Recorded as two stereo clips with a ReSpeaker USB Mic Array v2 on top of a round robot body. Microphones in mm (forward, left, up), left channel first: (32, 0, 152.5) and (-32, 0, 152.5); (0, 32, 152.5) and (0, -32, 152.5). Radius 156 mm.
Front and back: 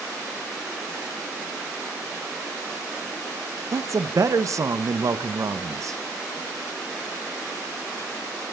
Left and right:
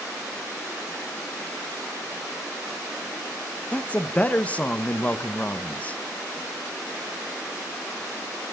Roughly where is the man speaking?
Behind left.